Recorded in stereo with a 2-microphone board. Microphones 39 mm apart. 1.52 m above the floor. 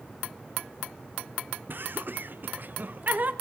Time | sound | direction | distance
1.7 | laughter | 60° right (ahead or behind) | 0.7 m